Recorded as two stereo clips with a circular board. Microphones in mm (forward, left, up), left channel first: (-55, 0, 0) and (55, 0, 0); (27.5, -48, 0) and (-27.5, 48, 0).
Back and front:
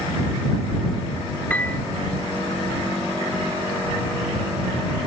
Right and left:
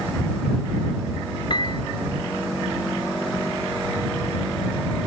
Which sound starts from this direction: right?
A piano, at 1.5 s.